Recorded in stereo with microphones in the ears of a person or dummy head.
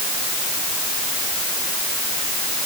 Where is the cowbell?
No cowbell in this recording.